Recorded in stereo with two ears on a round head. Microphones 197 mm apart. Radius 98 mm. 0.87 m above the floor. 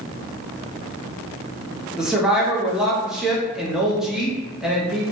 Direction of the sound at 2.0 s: 5° right (ahead or behind).